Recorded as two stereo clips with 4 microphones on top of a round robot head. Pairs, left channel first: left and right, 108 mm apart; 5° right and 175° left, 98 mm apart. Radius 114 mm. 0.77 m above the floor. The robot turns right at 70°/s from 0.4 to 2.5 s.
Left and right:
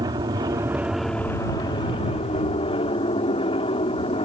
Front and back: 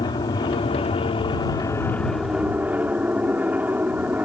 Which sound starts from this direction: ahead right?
An aircraft, at 0.0 s.